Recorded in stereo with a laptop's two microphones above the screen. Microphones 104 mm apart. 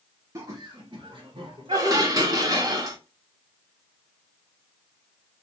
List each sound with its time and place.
0.3 s laughter: 30° right (ahead or behind), 0.7 m; by 2.1 s 65° right (ahead or behind), 1.4 m
1.7 s dishes clattering: 35° right (ahead or behind), 0.7 m